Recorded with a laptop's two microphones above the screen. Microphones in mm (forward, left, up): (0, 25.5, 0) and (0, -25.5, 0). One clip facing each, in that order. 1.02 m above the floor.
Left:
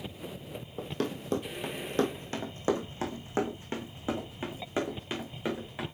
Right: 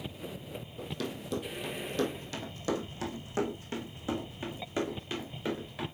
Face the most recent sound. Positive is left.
turn(degrees=20)  # may be behind; listen again after turning